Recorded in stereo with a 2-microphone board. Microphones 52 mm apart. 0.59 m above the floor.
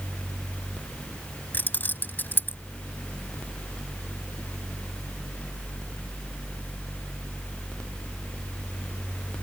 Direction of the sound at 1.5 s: 40° left (ahead or behind).